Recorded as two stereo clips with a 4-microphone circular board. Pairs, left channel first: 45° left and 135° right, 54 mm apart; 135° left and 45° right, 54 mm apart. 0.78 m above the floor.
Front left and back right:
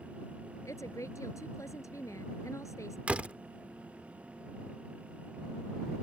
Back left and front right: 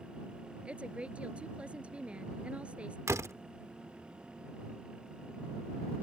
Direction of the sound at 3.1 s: 70° right.